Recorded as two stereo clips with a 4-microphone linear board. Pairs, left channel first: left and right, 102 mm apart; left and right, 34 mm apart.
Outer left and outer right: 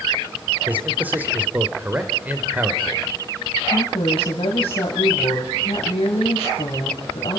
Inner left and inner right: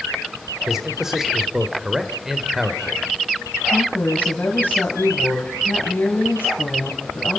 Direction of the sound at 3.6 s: 75° left (ahead or behind).